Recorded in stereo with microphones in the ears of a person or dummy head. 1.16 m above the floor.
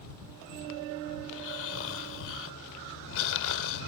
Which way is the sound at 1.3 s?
70° left (ahead or behind).